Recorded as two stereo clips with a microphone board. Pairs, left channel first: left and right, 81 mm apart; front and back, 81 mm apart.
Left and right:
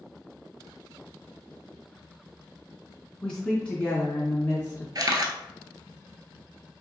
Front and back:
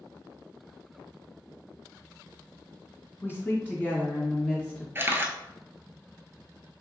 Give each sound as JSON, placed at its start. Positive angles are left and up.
{"t": 3.2, "sound": "a woman speaking", "azimuth_deg": 10, "distance_m": 1.7}
{"t": 5.0, "sound": "a camera shutter", "azimuth_deg": -120, "distance_m": 0.6}